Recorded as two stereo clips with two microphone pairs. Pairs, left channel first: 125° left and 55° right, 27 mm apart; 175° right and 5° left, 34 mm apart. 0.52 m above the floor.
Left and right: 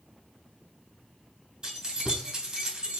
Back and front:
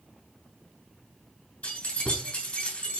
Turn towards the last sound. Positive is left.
turn(degrees=-125)